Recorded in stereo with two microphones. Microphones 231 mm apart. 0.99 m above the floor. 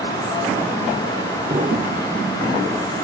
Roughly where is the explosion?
Right.